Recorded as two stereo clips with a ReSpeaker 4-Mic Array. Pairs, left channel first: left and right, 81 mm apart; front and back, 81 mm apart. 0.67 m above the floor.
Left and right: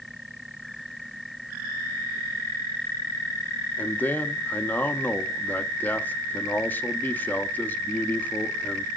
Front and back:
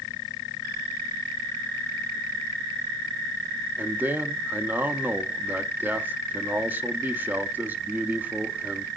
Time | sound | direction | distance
3.8 | a man speaking | 135° left | 0.6 m